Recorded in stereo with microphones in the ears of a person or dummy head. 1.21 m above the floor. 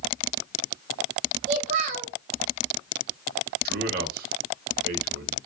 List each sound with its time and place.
1.5 s a child speaking: 40° right (ahead or behind), 0.8 m
3.6 s a man speaking: 50° right (ahead or behind), 0.8 m